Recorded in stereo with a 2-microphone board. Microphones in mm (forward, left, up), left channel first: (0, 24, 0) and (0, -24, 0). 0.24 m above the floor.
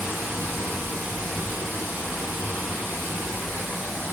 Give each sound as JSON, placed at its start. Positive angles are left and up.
{"t": 0.0, "sound": "running water", "side_deg": -70, "distance_m": 1.3}